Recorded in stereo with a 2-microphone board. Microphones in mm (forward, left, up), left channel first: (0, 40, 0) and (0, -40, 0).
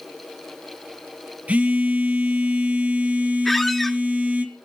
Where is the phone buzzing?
20° right (ahead or behind), 1.9 m.